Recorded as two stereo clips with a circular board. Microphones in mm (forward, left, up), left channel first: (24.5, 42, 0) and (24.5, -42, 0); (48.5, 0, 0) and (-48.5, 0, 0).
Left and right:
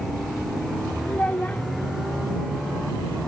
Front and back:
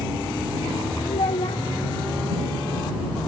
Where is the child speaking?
20° left.